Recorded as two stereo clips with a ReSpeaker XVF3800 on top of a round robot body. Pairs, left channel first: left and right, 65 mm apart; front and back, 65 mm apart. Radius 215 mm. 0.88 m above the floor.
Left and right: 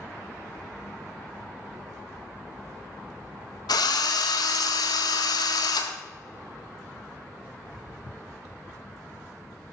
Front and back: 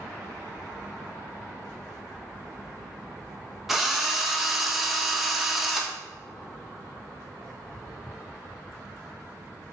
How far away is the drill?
About 0.8 m.